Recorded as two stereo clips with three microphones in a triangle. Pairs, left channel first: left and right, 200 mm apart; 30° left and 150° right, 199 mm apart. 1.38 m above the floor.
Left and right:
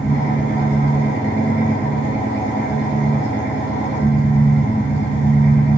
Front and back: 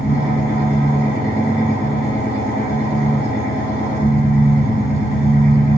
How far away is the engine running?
About 2 m.